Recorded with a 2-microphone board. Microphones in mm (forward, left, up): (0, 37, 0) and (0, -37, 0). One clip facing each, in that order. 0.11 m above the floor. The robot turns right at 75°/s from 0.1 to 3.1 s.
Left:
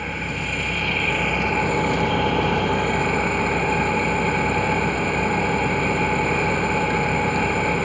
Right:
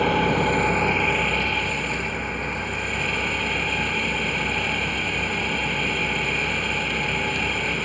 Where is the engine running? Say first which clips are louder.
Right 8 dB; 80° right, 1.8 m; by 7.9 s 145° left, 1.8 m.